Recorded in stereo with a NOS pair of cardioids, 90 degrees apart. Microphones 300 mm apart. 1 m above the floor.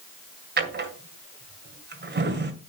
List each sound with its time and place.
0.6 s a drawer: 35° right, 1.8 m